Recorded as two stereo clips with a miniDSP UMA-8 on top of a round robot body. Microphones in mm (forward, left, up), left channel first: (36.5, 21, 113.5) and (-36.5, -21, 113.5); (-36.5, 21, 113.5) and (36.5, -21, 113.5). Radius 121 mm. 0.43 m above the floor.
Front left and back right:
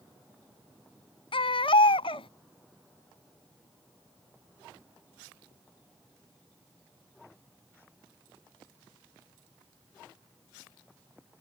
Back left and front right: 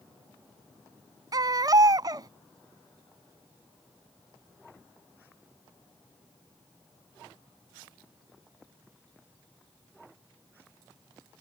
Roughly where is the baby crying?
Ahead.